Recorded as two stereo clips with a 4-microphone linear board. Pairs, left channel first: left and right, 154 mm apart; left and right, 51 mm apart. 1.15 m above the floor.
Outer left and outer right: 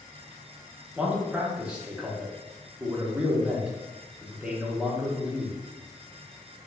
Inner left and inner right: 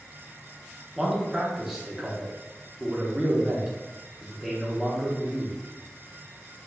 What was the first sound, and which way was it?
A man speaking, 5° right (ahead or behind).